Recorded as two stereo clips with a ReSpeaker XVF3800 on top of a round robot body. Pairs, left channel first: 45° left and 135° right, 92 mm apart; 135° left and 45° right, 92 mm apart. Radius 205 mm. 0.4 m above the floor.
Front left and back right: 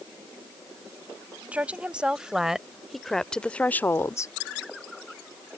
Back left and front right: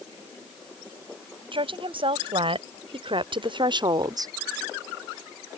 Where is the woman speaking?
60° right; by 4.3 s straight ahead.